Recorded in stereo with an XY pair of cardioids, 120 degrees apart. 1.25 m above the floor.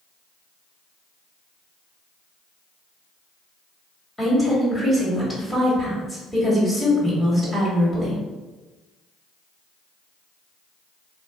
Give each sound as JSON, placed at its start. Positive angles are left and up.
{"t": 4.2, "sound": "a woman speaking", "azimuth_deg": 20, "distance_m": 1.7}